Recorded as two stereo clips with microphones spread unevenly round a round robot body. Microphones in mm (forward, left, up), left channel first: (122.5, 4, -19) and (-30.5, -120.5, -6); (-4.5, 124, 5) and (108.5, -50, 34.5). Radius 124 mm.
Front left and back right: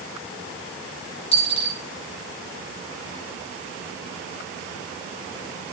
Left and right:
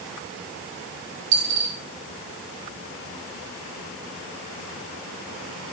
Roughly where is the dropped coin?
Ahead.